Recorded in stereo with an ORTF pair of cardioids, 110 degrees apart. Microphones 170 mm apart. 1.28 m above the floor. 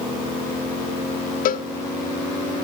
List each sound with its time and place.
1.4 s a cowbell: 55° left, 0.7 m